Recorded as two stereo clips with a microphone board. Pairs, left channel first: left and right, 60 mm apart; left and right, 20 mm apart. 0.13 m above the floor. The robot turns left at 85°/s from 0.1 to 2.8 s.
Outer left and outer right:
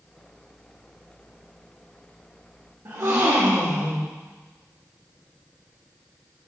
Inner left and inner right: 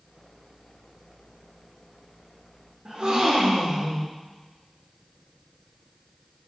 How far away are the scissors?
No scissors in this recording.